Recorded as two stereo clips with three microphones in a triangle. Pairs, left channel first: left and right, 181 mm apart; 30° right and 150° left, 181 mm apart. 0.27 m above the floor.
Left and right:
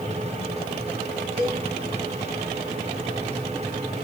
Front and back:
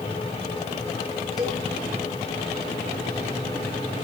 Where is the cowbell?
120° right, 4.5 m.